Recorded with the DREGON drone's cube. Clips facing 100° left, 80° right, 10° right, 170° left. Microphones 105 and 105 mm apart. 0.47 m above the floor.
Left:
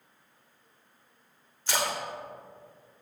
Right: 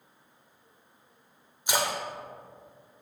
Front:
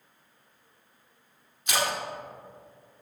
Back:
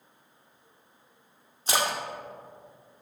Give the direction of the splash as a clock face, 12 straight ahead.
5 o'clock.